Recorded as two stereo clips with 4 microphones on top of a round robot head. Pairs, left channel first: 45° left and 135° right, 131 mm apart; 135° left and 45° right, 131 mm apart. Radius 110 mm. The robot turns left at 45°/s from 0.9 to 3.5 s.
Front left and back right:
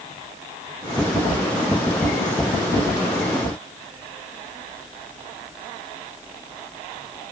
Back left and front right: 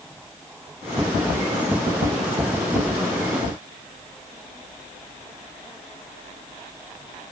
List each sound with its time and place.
Only background noise.